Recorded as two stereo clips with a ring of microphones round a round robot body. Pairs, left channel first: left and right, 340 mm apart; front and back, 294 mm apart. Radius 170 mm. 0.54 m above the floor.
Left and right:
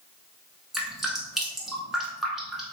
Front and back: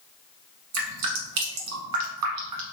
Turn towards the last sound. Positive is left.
turn(degrees=180)